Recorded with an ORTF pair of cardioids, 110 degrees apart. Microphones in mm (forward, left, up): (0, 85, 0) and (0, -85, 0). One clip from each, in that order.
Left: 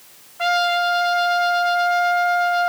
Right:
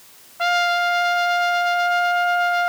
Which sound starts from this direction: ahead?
A trumpet, at 0.4 s.